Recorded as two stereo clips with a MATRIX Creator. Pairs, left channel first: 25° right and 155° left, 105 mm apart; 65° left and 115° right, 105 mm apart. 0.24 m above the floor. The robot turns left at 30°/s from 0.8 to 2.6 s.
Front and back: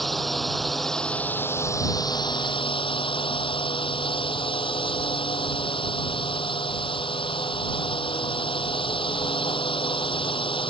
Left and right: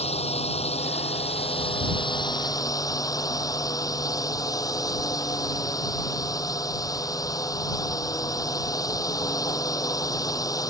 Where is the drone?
65° left; by 10.7 s 10° left.